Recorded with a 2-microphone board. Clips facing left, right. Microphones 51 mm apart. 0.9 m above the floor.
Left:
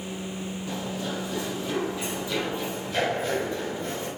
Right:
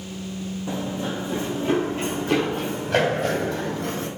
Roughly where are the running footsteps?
Centre.